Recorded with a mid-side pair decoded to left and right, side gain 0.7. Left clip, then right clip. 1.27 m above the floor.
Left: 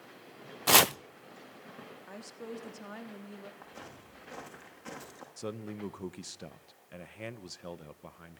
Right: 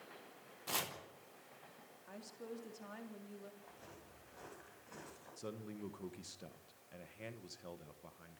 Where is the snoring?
No snoring in this recording.